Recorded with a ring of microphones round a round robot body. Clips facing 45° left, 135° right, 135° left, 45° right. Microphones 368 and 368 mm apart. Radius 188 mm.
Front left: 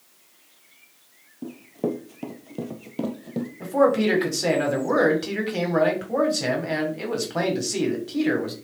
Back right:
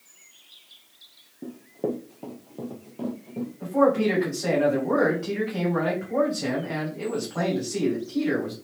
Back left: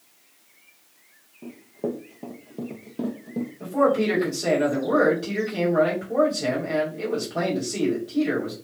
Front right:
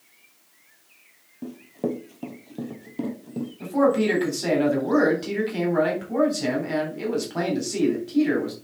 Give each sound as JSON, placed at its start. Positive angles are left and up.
{"t": 1.4, "sound": "running footsteps", "azimuth_deg": -20, "distance_m": 1.1}
{"t": 3.6, "sound": "a man speaking", "azimuth_deg": 20, "distance_m": 3.0}